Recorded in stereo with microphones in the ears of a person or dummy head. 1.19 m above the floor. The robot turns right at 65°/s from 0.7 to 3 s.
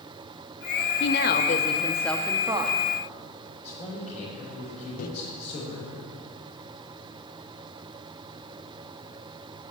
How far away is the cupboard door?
I don't hear a cupboard door.